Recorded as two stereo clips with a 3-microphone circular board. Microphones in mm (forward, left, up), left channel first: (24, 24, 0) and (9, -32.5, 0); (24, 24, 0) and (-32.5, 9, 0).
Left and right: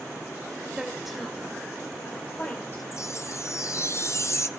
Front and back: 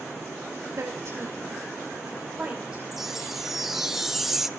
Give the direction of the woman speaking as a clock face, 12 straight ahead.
6 o'clock.